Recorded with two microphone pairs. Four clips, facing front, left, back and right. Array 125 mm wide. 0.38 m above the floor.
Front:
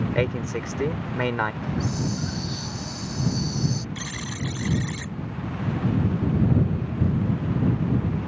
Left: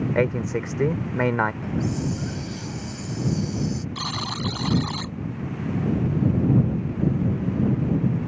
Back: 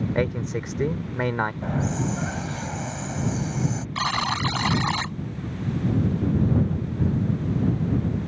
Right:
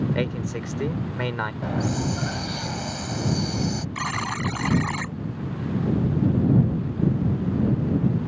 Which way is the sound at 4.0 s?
175° right.